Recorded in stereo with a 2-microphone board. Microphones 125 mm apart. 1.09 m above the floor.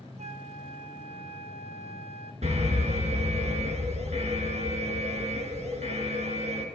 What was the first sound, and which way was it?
A flute, 60° right (ahead or behind).